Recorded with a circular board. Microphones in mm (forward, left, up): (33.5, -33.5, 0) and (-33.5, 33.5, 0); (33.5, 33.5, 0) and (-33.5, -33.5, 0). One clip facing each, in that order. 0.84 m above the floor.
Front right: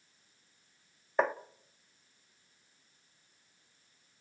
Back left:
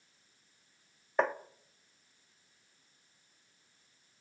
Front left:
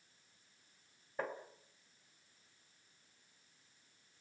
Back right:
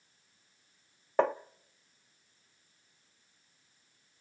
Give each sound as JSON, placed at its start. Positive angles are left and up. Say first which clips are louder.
{"t": 1.2, "sound": "tapping", "louder": "front right 1 dB, back right 14 dB", "azimuth_deg": -130, "distance_m": 0.9}